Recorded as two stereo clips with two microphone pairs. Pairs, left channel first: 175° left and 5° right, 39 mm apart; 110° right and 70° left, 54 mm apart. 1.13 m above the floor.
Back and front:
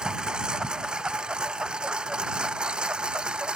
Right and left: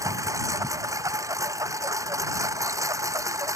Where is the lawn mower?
60° left.